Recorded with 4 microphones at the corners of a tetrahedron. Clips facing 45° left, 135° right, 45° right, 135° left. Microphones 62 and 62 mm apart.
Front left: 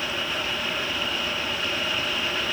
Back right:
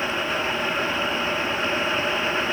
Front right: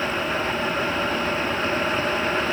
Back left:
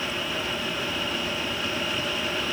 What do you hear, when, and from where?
Only background noise.